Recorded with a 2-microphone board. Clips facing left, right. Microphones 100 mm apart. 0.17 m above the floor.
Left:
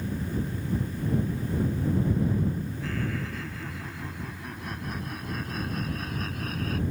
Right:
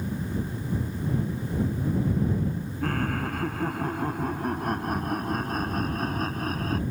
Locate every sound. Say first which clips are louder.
2.8 s laughter: right 7 dB; 55° right (ahead or behind); by 6.8 s 40° right (ahead or behind)